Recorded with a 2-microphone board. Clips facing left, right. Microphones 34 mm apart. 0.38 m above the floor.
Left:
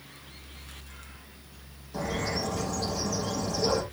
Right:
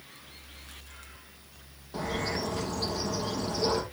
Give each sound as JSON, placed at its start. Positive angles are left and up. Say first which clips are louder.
{"t": 1.9, "sound": "a bird", "louder": "left 1 dB", "side_deg": -40, "distance_m": 4.0}